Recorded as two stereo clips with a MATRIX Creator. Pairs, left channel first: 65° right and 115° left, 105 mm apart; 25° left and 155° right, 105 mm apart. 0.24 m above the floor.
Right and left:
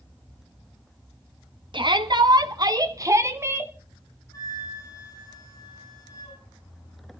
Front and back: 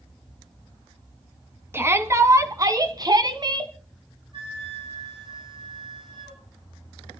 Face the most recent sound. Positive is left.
turn(degrees=-120)